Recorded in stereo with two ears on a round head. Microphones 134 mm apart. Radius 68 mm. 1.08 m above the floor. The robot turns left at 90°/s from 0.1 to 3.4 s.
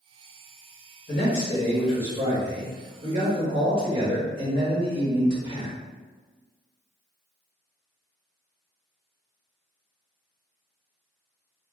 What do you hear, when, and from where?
1.1 s a man speaking: 70° left, 1.3 m; by 5.8 s 140° right, 1.3 m